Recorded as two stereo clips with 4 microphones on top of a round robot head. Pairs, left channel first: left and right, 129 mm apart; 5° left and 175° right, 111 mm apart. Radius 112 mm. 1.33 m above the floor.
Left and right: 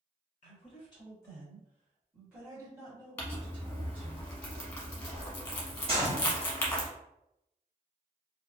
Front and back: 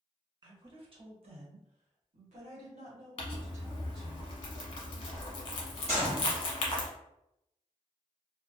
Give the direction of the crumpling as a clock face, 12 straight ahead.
11 o'clock.